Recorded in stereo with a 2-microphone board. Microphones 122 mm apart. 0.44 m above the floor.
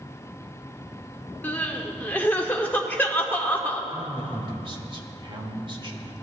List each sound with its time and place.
1.4 s crying: 15° left (ahead or behind), 0.9 m
3.9 s a man speaking: 45° right (ahead or behind), 1.4 m